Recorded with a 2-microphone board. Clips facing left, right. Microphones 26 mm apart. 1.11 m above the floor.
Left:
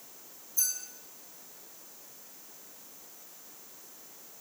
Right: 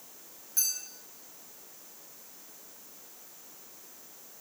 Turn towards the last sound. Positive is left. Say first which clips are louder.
# right 1 dB
turn(degrees=-85)